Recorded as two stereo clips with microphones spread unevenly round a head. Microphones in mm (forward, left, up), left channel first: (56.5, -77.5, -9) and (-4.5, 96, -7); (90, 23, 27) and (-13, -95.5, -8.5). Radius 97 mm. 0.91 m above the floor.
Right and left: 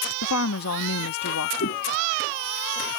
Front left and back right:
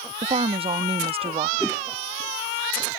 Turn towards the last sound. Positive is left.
turn(degrees=-40)